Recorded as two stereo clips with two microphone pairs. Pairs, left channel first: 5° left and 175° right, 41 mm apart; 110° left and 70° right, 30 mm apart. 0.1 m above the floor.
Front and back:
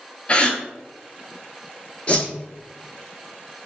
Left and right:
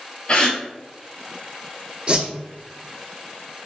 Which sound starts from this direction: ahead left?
A gasp, at 0.3 s.